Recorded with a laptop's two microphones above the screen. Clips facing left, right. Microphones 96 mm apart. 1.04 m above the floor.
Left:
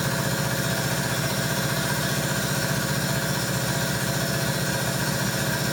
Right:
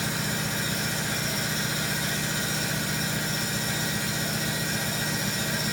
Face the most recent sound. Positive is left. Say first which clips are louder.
# left 4 dB
turn(degrees=80)